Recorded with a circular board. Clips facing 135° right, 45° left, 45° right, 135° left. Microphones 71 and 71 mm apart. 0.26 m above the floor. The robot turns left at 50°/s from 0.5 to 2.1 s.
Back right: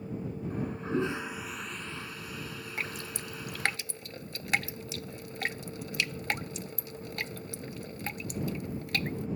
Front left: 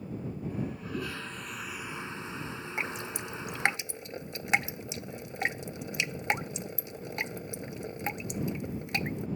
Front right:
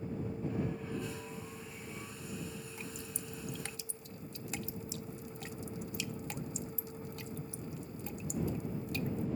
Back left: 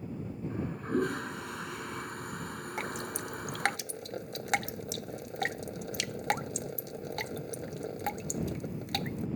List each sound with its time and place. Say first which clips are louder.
0.5 s a toilet flushing: back right 6 dB, back left 10 dB; 170° right; by 3.8 s 110° left
2.8 s dripping: front left 3 dB, back left 9 dB; 115° left